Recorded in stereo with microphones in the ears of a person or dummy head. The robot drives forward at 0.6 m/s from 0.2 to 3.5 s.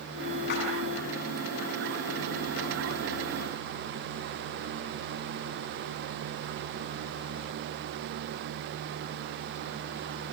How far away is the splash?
About 7 m.